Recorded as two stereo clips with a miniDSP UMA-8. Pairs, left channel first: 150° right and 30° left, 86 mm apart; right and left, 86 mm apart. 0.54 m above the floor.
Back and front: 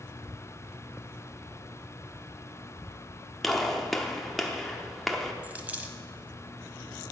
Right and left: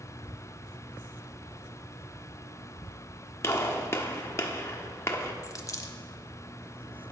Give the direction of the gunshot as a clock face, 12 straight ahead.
2 o'clock.